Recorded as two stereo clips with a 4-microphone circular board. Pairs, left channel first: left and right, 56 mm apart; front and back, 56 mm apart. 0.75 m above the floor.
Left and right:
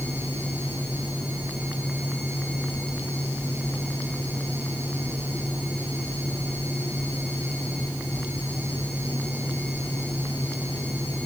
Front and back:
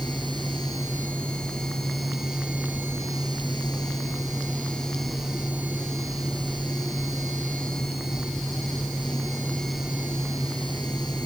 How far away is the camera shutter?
I don't hear a camera shutter.